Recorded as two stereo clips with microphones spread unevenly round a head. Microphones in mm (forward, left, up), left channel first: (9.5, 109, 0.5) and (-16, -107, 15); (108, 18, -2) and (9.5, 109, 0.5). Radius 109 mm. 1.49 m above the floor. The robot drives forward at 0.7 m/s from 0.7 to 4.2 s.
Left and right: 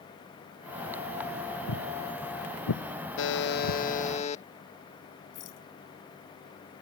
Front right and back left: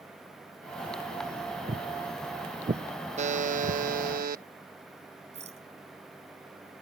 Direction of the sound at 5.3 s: 105° left.